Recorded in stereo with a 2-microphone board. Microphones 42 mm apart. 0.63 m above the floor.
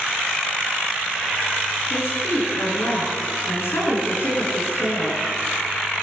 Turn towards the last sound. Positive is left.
turn(degrees=80)